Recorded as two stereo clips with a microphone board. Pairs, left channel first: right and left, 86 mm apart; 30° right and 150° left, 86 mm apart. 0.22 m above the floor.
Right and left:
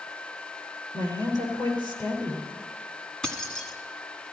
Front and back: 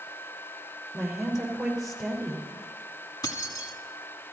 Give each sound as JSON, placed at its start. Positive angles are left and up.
{"t": 0.9, "sound": "a woman speaking", "azimuth_deg": -125, "distance_m": 5.0}
{"t": 3.2, "sound": "keys jangling", "azimuth_deg": -10, "distance_m": 1.4}